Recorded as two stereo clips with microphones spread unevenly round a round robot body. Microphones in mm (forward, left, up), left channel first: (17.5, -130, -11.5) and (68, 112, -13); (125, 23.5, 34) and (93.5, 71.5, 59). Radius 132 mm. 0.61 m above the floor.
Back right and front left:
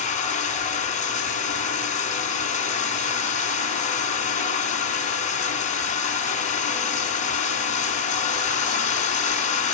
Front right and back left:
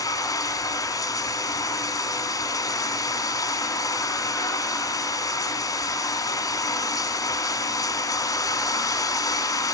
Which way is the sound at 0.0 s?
40° right.